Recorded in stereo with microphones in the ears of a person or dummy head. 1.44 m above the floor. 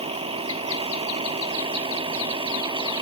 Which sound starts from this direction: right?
A vehicle, at 0.0 s.